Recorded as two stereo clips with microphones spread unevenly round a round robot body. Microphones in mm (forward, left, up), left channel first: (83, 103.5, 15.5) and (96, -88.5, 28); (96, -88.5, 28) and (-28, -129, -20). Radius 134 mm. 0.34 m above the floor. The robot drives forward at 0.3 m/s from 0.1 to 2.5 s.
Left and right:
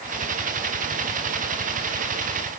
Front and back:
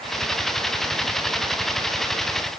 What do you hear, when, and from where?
Only background noise.